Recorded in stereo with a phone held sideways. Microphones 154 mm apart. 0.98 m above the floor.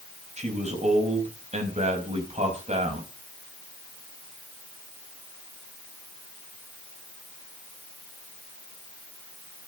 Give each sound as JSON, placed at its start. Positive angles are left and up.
{"t": 0.4, "sound": "a man speaking", "side_deg": -50, "distance_m": 5.0}